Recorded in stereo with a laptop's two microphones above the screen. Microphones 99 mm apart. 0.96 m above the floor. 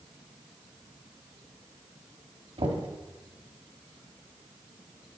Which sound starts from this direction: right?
Knocking, at 2.6 s.